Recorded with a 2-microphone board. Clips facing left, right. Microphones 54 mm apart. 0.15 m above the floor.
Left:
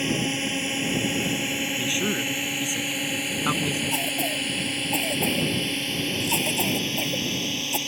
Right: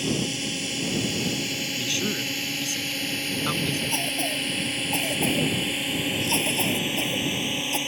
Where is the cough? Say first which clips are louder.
Left 1 dB; 5° left (ahead or behind).